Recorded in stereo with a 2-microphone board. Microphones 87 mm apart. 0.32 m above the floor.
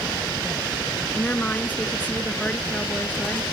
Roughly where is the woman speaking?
Centre.